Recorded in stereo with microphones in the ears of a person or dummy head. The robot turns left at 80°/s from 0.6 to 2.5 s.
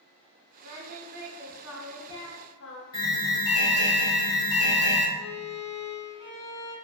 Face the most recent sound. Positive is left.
turn(degrees=0)  # may be behind; listen again after turning